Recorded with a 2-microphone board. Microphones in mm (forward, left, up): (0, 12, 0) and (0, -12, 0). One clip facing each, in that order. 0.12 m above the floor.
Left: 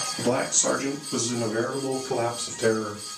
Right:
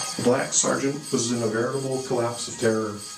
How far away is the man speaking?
About 1.5 m.